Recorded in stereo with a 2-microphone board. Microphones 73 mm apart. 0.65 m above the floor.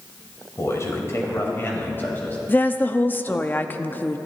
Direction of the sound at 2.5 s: 25° left (ahead or behind).